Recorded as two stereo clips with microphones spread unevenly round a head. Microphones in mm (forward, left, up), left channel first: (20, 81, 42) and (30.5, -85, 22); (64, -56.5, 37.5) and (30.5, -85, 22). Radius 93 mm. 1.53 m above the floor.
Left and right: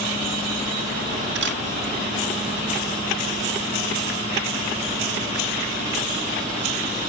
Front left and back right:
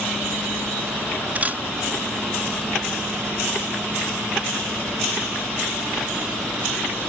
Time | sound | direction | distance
1.4 | a camera shutter | 85° right | ?